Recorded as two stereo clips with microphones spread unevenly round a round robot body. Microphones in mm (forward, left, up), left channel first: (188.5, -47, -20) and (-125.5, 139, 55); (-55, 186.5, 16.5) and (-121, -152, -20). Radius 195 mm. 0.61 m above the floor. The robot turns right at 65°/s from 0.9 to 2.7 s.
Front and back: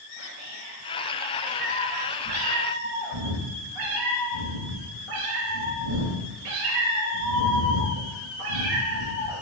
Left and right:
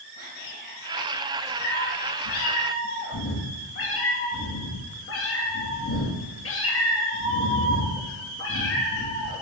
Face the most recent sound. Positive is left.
turn(degrees=130)